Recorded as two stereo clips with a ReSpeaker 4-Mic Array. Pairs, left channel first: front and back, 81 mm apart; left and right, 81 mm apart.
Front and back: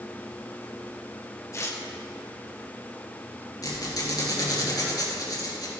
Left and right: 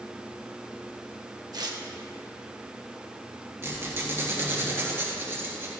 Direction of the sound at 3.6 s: 30° right.